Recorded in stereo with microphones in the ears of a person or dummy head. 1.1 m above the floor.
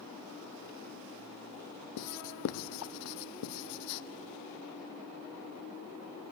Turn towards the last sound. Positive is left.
turn(degrees=55)  # may be behind; listen again after turning